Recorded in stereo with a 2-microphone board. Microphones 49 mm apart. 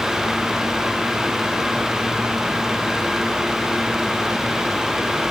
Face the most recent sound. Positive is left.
No sound to turn to.